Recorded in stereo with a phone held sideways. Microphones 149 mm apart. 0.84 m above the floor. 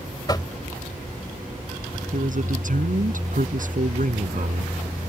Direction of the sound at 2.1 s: 65° right (ahead or behind).